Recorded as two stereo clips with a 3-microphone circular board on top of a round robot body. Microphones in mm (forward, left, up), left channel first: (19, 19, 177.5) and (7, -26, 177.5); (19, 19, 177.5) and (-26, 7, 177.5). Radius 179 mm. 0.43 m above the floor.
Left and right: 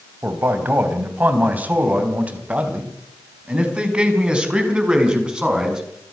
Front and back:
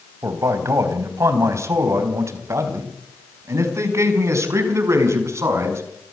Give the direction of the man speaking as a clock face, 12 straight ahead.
5 o'clock.